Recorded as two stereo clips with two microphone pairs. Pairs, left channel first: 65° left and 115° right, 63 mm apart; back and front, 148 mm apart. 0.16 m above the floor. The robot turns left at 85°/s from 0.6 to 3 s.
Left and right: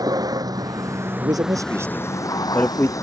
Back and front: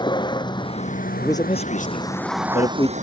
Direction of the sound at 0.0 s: 120° right.